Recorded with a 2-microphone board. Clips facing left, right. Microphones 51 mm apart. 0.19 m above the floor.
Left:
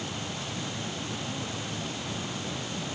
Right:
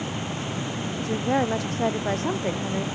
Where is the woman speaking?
75° right (ahead or behind).